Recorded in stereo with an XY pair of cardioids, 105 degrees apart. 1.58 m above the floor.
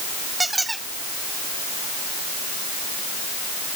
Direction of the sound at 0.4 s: 15° right.